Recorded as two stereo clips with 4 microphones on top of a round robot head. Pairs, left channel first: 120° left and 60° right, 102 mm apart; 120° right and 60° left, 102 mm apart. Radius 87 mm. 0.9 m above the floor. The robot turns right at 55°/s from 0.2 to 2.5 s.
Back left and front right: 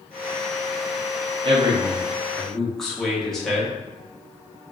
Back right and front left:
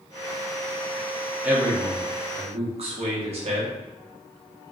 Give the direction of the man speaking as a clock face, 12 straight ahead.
1 o'clock.